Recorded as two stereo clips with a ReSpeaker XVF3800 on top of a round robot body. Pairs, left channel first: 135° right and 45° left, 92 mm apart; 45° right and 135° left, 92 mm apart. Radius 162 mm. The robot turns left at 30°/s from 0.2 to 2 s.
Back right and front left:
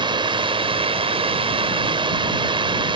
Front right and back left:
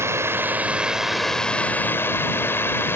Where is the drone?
75° left; by 3.0 s 20° left.